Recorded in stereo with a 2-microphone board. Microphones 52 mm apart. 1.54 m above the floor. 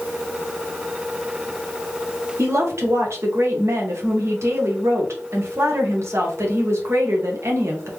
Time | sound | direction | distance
2.4 | a woman speaking | 65° right (ahead or behind) | 1.3 m